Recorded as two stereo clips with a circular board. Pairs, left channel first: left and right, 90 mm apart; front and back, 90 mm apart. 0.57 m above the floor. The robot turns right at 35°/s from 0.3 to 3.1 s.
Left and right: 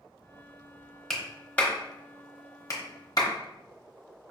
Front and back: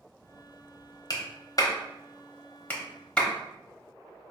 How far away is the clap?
About 0.9 m.